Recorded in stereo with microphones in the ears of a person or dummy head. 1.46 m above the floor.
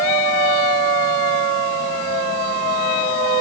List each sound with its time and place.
Only background noise.